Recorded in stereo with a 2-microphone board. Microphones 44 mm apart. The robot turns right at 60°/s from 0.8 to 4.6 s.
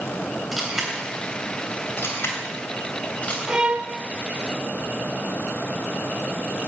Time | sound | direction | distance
0.5 | a camera shutter | 5° right (ahead or behind) | 3 m
3.5 | a violin | 15° right (ahead or behind) | 0.7 m